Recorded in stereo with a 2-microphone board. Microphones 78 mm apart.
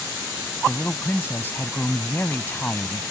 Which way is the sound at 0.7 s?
25° left (ahead or behind).